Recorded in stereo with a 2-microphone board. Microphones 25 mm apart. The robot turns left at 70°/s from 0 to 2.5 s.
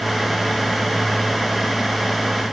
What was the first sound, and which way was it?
Only background noise.